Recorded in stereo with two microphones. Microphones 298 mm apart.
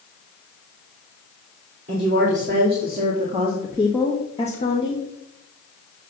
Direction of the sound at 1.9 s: 40° right (ahead or behind).